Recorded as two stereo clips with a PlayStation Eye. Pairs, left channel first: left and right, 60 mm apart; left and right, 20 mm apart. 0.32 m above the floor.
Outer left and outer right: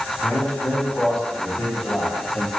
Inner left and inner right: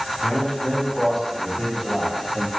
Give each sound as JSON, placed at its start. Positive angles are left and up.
{"t": 0.2, "sound": "a man speaking", "side_deg": 10, "distance_m": 3.5}